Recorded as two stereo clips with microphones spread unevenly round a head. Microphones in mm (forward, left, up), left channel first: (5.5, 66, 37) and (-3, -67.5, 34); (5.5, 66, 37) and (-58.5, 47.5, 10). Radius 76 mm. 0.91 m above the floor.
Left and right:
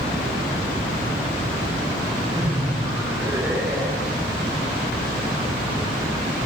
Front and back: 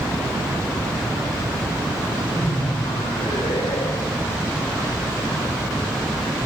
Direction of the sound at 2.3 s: 30° right.